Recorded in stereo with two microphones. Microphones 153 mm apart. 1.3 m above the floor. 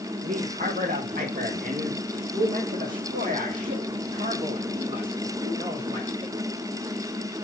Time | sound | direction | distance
0.2 | a man speaking | 55° right (ahead or behind) | 1.3 m